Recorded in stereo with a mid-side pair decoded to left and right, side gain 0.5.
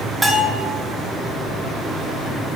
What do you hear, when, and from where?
0.2 s a bell: 15° right, 0.7 m